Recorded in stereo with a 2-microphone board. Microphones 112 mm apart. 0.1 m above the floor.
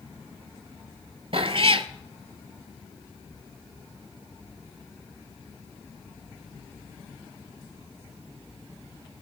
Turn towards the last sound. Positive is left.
turn(degrees=-55)  # may be behind; listen again after turning